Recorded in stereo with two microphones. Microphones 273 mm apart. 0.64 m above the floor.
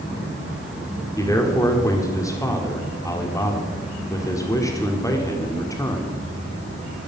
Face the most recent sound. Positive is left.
turn(degrees=10)  # may be behind; listen again after turning